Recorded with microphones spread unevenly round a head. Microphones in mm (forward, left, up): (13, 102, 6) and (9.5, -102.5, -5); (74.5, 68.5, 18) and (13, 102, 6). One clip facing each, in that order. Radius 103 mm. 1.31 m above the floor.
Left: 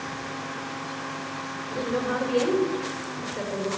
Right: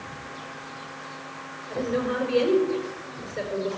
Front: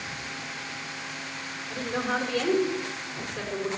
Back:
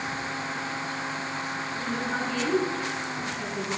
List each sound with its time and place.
1.7 s a woman speaking: 5° right, 5 m